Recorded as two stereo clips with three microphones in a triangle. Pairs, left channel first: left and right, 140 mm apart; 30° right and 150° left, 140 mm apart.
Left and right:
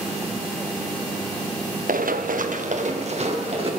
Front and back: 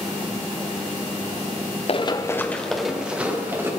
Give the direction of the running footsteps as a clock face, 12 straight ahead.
3 o'clock.